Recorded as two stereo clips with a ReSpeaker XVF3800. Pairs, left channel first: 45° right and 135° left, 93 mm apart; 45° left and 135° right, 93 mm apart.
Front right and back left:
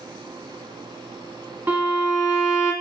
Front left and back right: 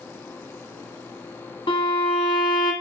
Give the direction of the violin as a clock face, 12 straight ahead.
10 o'clock.